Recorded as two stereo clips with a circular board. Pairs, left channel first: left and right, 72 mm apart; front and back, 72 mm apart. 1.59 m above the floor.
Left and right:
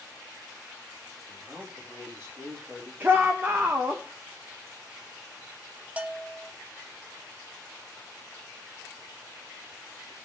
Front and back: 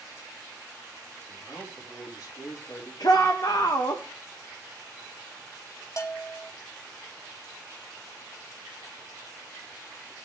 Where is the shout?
30° right, 2 m.